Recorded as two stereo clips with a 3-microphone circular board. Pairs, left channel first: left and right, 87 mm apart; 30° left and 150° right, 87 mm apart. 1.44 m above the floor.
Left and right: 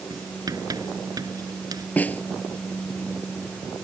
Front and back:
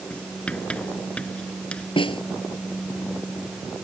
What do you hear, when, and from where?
0.1 s writing: 45° right
2.0 s a snare drum: 20° left